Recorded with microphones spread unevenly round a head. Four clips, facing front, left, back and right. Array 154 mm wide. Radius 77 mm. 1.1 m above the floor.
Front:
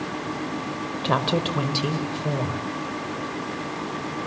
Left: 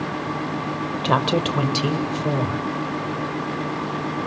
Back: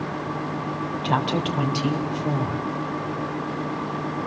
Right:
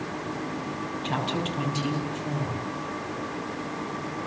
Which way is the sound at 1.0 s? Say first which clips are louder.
Left 9 dB, front 1 dB; 65° left.